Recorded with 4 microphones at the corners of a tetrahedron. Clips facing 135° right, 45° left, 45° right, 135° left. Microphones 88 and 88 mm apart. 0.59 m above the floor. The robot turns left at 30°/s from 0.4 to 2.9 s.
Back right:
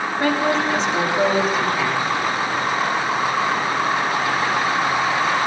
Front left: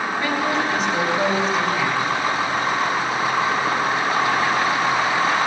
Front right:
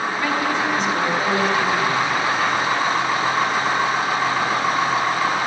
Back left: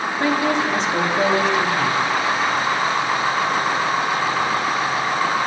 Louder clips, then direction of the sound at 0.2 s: Back right 4 dB, back left 4 dB; 175° left.